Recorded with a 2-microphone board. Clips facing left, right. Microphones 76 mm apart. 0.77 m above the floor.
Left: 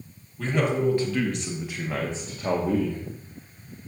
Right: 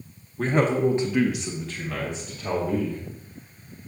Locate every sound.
0.4 s a man speaking: 45° right (ahead or behind), 1.1 m; by 3.0 s 55° left (ahead or behind), 1.3 m